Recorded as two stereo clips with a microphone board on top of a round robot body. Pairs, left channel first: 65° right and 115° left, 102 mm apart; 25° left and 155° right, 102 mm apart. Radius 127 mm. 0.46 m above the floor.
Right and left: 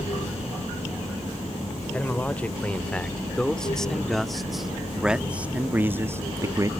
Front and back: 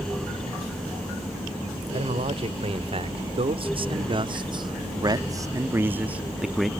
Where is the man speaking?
145° right; by 6.7 s 110° left.